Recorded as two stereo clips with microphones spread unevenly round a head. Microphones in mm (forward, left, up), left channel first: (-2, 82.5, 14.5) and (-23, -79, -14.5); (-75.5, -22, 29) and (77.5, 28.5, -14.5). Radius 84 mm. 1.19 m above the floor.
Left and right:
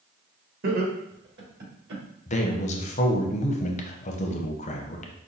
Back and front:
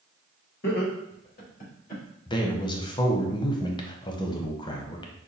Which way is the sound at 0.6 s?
130° right.